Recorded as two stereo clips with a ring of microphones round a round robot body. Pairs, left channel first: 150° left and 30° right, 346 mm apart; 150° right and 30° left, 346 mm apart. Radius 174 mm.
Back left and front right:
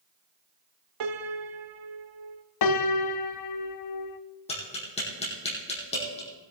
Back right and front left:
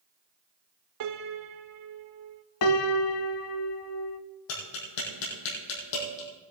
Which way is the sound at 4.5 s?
135° right.